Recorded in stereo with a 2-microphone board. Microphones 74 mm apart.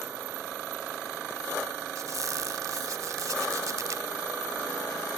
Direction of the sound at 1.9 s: 55° right (ahead or behind).